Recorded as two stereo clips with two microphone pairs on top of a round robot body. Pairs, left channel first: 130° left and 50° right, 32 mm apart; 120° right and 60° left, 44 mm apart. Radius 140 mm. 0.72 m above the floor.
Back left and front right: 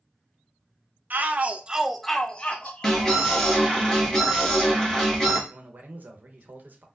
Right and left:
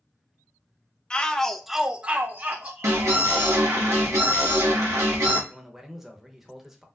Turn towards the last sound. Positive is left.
turn(degrees=-25)